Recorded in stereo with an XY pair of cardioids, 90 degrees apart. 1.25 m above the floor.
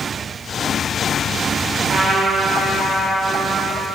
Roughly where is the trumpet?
Ahead right.